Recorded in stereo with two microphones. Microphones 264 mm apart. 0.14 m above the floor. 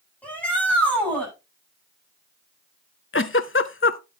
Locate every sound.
0.2 s a shout: 5° left (ahead or behind), 10 m
3.1 s a giggle: 50° left (ahead or behind), 0.5 m